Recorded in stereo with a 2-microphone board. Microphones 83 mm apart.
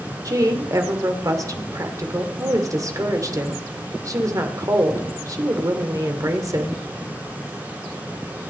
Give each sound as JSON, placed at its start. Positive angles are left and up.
{"t": 0.2, "sound": "a woman speaking", "side_deg": -45, "distance_m": 2.0}